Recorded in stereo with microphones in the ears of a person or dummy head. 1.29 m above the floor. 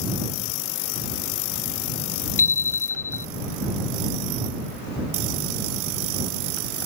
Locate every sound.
2.4 s a bicycle bell: 10° left (ahead or behind)